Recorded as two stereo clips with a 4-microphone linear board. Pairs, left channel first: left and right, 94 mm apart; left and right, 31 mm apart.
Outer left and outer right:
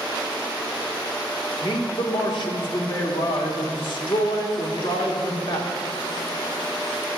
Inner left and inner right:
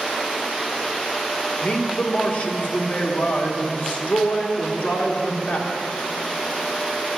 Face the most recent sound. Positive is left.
turn(degrees=60)  # may be behind; listen again after turning